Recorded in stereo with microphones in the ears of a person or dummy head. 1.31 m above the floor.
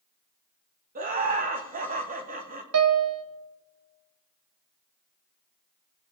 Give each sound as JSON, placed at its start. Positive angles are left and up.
{"t": 0.9, "sound": "laughter", "side_deg": -45, "distance_m": 1.3}
{"t": 2.7, "sound": "a piano", "side_deg": -75, "distance_m": 0.9}